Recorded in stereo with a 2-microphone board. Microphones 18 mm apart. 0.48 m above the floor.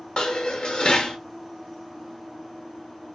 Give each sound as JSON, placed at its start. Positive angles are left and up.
{"t": 0.2, "sound": "dishes clattering", "side_deg": 55, "distance_m": 0.8}